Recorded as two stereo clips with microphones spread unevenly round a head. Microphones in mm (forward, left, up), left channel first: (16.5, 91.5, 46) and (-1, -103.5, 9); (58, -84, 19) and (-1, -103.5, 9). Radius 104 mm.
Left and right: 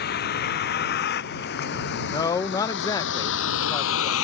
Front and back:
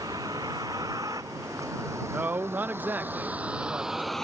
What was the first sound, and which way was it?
A vehicle, 130° left.